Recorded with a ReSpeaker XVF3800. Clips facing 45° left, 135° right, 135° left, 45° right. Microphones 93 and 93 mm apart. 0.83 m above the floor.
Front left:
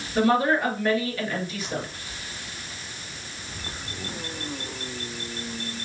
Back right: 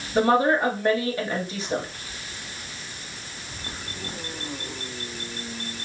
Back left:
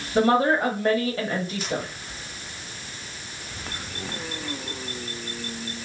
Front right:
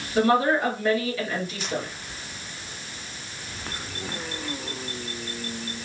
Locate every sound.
0.1 s a woman speaking: 170° left, 1.1 m